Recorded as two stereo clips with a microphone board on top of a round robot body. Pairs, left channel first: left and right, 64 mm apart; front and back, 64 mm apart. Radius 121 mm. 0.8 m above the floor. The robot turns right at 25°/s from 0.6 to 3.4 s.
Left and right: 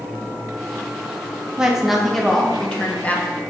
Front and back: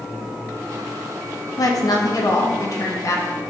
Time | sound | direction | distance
1.6 | a woman speaking | 10° right | 1.6 m